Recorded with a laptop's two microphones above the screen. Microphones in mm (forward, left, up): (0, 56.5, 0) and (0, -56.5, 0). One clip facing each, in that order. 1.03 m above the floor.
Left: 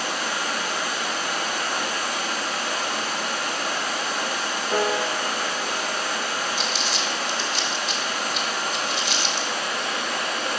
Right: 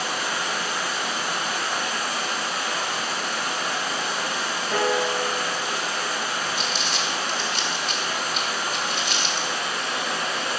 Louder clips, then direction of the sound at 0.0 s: Even; 5° right (ahead or behind).